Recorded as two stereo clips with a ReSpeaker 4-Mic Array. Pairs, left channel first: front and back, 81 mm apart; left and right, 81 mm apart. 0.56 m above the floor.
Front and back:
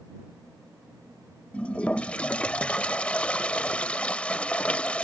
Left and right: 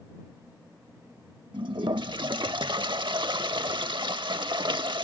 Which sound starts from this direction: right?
A toilet flushing, at 1.5 s.